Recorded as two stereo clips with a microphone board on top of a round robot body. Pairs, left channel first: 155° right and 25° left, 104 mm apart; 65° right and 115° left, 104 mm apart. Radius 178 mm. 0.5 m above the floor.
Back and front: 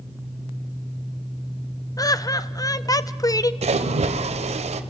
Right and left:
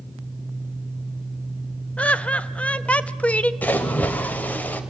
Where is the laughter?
140° right, 0.8 m.